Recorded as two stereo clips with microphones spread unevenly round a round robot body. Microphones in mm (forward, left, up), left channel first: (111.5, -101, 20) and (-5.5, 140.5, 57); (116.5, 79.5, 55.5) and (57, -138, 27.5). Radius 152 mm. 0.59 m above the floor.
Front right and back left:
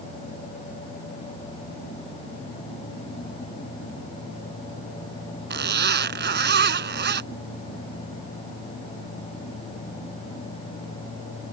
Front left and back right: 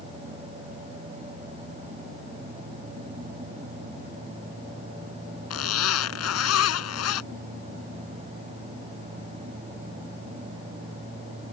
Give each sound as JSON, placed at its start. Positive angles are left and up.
{"t": 5.5, "sound": "a zipper", "azimuth_deg": 65}